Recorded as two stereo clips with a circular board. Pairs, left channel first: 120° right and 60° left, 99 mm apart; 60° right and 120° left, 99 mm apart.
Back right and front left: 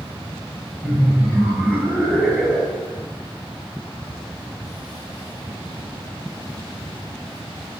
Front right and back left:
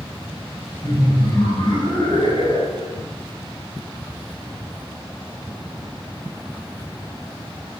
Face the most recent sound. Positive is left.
turn(degrees=-25)